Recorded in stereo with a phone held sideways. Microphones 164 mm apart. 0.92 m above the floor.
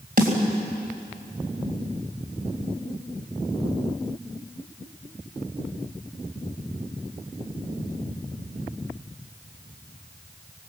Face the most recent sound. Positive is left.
turn(degrees=-60)  # may be behind; listen again after turning